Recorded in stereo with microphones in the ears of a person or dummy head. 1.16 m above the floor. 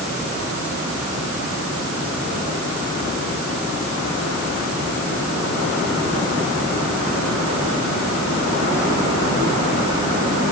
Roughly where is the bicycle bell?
No bicycle bell in this recording.